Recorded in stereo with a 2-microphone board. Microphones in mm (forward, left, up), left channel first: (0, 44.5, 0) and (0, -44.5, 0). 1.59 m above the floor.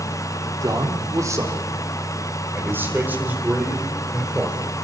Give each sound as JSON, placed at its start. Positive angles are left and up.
{"t": 0.6, "sound": "a man speaking", "side_deg": -40, "distance_m": 4.0}